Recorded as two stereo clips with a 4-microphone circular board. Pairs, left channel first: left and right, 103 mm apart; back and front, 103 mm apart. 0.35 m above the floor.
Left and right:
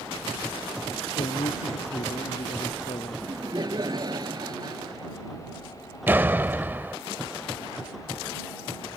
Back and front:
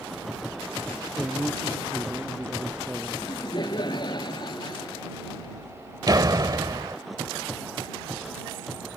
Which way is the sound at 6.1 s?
30° right.